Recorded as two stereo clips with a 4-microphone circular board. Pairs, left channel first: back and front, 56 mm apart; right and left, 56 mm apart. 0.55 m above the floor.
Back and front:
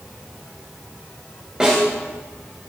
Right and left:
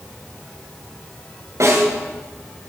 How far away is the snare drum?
About 8.5 m.